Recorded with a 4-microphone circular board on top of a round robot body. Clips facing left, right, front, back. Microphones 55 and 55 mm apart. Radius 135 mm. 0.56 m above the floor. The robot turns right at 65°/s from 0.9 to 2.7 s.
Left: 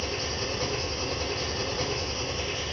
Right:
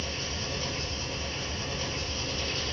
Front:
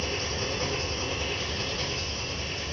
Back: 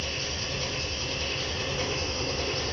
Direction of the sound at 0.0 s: 60° left.